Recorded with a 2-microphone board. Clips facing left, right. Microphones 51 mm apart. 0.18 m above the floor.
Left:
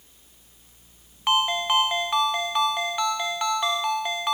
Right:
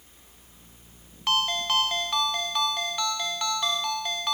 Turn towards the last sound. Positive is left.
turn(degrees=20)  # may be behind; listen again after turning